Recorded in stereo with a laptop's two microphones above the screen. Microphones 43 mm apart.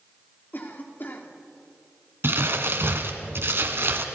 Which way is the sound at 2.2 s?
60° right (ahead or behind).